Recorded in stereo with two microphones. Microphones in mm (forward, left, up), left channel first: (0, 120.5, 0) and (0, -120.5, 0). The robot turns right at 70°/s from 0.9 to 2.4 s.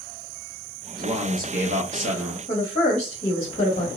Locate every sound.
1.0 s a man speaking: 160° right, 0.9 m; by 2.4 s 65° right, 0.9 m
2.5 s a woman speaking: 30° left (ahead or behind), 1.1 m